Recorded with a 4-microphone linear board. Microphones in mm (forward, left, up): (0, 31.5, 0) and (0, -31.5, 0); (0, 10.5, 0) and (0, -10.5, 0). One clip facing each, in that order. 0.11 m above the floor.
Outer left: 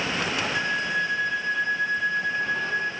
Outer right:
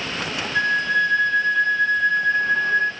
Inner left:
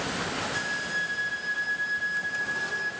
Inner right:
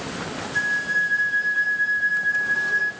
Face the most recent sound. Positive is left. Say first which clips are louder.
# outer right 10 dB, inner right 12 dB
turn(degrees=10)  # may be behind; listen again after turning